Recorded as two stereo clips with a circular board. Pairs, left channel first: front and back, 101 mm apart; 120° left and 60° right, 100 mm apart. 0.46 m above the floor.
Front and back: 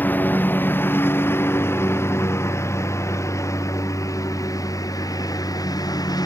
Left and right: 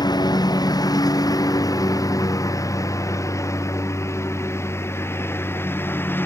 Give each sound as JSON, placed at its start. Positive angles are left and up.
{"t": 0.0, "sound": "a lawn mower", "azimuth_deg": 70}